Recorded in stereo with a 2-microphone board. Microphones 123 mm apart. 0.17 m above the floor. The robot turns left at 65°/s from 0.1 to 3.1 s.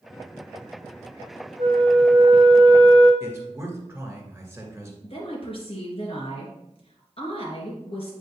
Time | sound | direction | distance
1.6 | a flute | 60° right | 2.5 m
3.2 | a man speaking | 20° right (ahead or behind) | 1.9 m
5.0 | a woman speaking | 50° left (ahead or behind) | 3 m